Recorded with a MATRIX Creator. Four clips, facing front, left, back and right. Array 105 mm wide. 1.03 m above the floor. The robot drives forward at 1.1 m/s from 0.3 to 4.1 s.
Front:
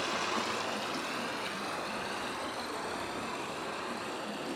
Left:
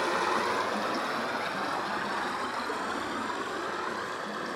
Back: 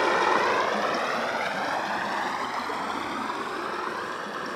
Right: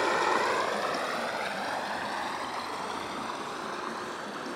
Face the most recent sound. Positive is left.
turn(degrees=-175)